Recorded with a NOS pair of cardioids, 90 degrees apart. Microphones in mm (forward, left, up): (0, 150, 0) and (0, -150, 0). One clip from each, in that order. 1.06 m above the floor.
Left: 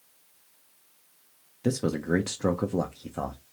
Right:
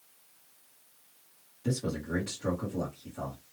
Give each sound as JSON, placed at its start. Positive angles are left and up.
{"t": 1.6, "sound": "a man speaking", "azimuth_deg": 60, "distance_m": 0.6}